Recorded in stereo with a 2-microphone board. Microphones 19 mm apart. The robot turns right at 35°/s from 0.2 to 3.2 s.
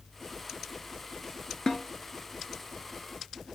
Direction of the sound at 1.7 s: 40° left (ahead or behind).